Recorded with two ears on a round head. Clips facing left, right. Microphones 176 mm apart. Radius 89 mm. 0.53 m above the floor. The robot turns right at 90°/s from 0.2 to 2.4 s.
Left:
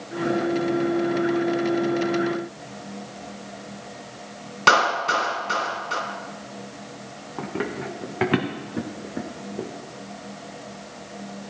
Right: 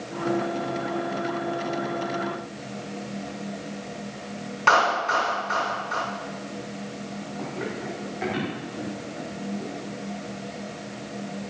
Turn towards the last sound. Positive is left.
turn(degrees=55)  # may be behind; listen again after turning